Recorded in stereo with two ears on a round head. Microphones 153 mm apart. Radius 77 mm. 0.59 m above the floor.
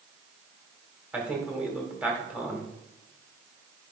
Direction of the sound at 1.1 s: 10° right (ahead or behind).